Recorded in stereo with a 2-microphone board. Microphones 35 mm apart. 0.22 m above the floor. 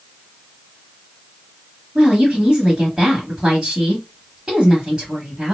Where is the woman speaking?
25° right (ahead or behind), 1.1 m.